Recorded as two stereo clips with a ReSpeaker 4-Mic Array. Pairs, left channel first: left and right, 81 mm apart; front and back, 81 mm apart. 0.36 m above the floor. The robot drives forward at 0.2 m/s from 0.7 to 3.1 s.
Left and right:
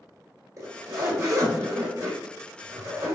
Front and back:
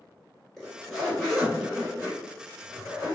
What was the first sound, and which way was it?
A zipper, 80° right.